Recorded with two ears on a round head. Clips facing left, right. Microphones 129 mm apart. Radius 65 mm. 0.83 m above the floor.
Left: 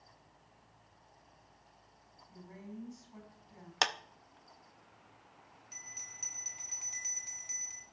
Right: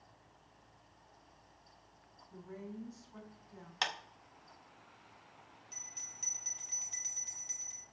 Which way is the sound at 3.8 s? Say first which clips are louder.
Left 5 dB; 50° left (ahead or behind).